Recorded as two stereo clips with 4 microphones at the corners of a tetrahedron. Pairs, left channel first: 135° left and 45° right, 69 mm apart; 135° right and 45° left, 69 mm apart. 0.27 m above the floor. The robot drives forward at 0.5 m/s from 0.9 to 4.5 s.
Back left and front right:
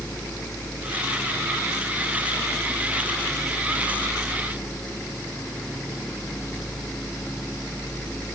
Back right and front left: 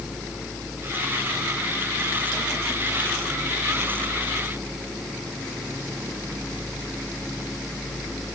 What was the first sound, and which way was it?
Only background noise.